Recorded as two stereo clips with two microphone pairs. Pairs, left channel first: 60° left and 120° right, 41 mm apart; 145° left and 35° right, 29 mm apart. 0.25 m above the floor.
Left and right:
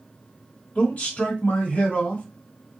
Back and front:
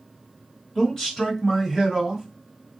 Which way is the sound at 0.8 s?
90° left.